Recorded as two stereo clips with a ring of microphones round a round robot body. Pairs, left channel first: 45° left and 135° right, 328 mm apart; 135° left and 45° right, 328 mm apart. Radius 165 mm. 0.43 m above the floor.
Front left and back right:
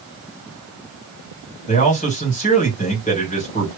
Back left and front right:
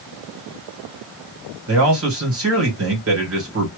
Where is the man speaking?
15° right, 2 m.